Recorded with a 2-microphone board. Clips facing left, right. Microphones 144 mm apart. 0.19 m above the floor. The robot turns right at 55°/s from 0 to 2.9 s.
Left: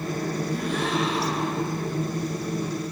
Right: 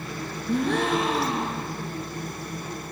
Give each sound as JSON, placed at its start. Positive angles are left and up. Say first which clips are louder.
{"t": 0.5, "sound": "a gasp", "louder": "right 8 dB", "azimuth_deg": -80, "distance_m": 5.5}